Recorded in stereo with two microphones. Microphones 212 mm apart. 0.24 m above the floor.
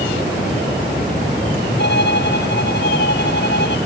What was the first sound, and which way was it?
A violin, 55° left (ahead or behind).